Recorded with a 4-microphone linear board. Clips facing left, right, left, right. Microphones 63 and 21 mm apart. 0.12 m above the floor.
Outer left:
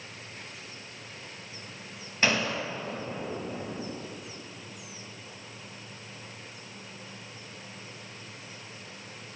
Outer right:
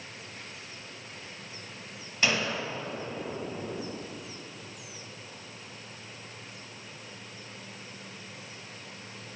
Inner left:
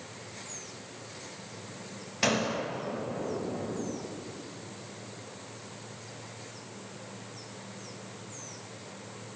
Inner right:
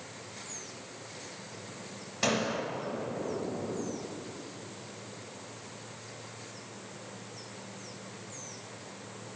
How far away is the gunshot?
About 2.5 m.